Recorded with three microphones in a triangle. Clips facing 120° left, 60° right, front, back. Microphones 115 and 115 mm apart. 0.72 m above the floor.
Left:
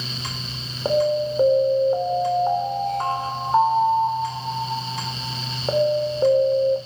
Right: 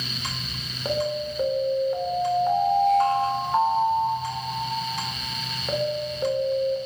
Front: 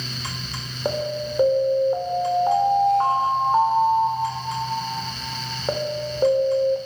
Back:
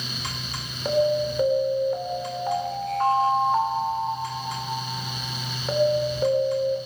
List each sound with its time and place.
0.8 s an alarm: 65° left, 3 m